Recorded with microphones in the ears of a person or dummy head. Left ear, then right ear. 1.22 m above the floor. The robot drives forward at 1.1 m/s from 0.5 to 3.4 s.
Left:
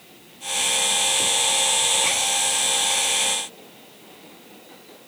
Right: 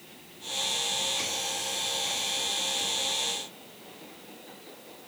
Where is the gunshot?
I don't hear a gunshot.